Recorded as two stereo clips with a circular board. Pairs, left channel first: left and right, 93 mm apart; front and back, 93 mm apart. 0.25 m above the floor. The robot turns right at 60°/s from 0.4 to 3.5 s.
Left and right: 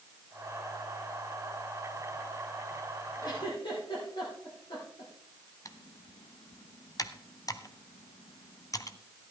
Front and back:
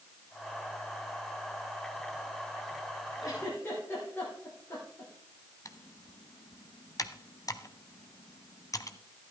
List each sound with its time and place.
3.2 s a giggle: 50° left, 6 m; by 5.1 s 65° left, 6 m
5.7 s typing on a keyboard: 45° left, 0.7 m